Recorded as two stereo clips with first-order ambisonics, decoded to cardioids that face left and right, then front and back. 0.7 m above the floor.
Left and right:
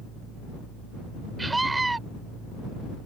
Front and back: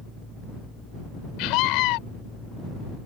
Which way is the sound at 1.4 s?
10° right.